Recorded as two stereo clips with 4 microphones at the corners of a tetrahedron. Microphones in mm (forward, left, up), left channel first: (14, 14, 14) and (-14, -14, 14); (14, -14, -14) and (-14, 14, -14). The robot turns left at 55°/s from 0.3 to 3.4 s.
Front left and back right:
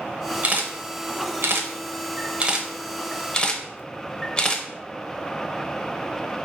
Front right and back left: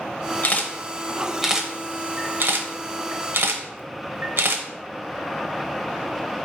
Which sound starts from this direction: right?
A camera shutter, at 0.4 s.